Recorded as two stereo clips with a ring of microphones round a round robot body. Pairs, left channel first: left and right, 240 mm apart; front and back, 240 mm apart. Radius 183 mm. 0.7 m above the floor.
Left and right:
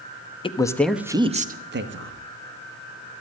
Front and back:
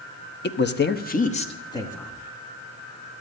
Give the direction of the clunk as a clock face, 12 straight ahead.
No clunk in this recording.